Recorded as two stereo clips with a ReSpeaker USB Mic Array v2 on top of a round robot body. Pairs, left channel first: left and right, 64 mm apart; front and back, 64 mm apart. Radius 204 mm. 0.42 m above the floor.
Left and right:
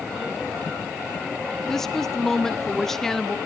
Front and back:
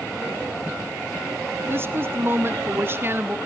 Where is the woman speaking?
170° left, 1.5 m.